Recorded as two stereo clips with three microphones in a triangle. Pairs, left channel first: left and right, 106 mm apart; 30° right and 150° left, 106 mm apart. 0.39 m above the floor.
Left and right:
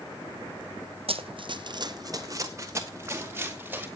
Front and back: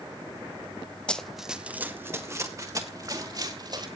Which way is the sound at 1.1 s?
110° right.